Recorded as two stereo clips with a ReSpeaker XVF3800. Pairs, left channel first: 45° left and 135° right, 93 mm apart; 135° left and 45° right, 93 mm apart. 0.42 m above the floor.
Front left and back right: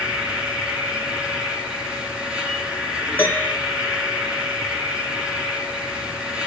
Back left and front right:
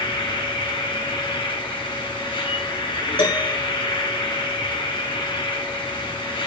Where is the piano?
115° left, 3.5 m.